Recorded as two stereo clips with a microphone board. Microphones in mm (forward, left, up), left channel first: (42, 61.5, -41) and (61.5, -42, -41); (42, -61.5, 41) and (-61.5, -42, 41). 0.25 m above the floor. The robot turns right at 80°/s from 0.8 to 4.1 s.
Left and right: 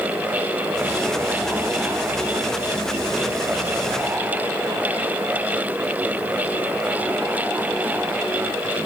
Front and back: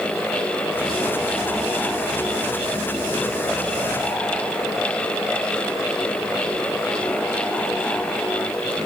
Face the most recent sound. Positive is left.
No sound to turn to.